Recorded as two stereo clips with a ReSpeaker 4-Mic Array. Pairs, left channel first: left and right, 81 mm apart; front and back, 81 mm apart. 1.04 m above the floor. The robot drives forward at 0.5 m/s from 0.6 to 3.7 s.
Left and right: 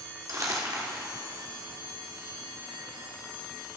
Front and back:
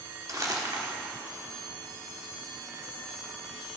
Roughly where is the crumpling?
Behind right.